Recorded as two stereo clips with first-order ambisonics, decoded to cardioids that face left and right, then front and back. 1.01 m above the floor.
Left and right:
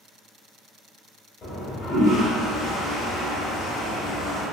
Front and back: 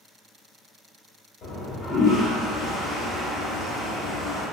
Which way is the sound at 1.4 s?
40° left.